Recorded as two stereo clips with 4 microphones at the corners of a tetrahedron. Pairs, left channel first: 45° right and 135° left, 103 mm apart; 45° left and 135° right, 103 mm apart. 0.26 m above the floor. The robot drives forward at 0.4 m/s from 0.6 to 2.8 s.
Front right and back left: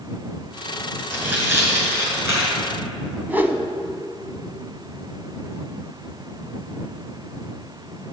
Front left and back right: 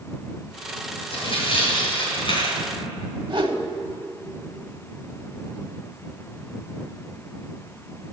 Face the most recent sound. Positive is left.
turn(degrees=-160)